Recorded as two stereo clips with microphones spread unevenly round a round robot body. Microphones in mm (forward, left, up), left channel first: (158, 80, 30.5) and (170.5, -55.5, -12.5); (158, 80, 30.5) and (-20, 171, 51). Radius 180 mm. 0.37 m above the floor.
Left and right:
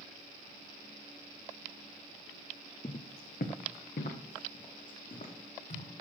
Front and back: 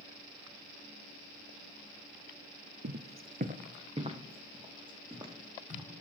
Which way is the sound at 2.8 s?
140° left.